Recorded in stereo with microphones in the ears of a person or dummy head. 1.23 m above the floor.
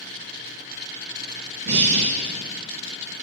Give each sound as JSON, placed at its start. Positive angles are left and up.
{"t": 1.6, "sound": "breathing", "side_deg": -55, "distance_m": 0.8}